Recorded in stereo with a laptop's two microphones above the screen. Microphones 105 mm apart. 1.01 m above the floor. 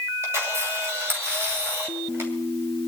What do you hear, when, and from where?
0.2 s a camera shutter: 25° right (ahead or behind), 2.5 m